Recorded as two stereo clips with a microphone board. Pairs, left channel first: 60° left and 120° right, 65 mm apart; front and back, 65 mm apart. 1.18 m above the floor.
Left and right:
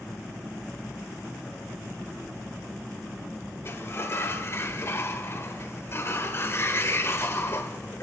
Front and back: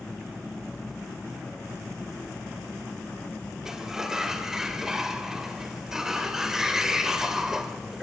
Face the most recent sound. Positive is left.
turn(degrees=100)